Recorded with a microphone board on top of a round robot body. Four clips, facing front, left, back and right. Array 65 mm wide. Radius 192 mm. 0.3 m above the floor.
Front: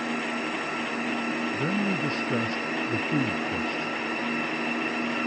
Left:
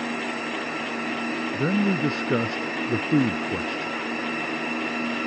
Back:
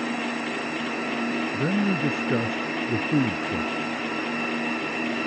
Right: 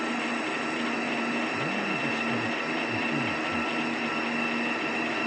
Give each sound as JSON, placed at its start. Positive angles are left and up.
{"t": 1.5, "sound": "a man speaking", "azimuth_deg": 115}